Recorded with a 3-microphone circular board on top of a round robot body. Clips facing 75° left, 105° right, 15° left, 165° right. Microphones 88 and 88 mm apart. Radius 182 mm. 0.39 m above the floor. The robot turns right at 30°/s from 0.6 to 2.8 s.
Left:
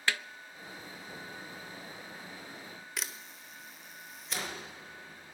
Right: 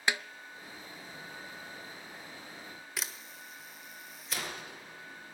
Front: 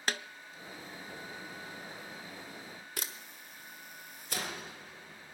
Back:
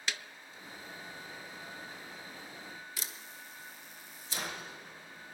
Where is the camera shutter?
15° right, 1.8 m.